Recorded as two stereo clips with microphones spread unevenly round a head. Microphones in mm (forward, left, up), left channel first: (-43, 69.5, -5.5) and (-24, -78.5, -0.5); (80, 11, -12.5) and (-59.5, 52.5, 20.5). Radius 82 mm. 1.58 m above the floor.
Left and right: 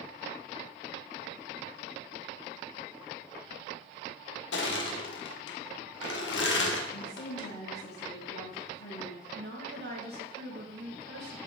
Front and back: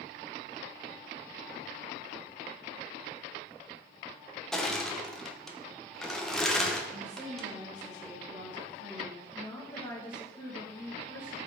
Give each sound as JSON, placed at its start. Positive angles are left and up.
{"t": 4.5, "sound": "crushing", "azimuth_deg": 70, "distance_m": 1.5}
{"t": 6.9, "sound": "a woman speaking", "azimuth_deg": 105, "distance_m": 2.5}
{"t": 9.3, "sound": "a woman speaking", "azimuth_deg": -95, "distance_m": 2.5}